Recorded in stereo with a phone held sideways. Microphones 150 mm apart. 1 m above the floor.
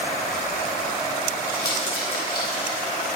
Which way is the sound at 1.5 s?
75° left (ahead or behind).